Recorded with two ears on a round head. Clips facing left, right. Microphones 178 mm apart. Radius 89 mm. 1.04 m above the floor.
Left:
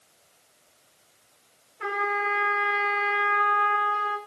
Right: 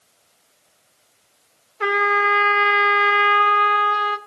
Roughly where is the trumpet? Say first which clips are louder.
Right 8 dB; right.